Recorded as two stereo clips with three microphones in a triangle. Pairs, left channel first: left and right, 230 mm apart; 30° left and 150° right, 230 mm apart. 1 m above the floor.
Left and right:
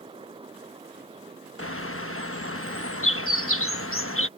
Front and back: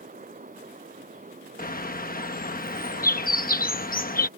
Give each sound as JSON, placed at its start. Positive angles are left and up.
{"t": 1.6, "sound": "a bird", "azimuth_deg": 75}